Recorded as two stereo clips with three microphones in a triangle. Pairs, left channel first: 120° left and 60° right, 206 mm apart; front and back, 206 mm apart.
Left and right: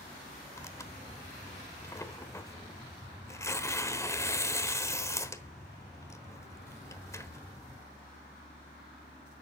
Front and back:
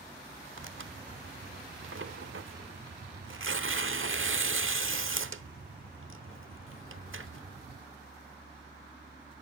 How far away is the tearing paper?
About 1.0 m.